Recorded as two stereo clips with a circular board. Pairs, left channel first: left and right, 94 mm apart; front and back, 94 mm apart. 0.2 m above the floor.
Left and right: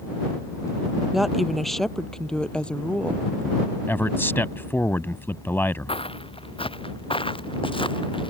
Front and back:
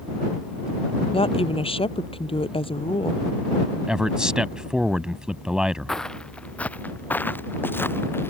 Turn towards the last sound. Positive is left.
turn(degrees=65)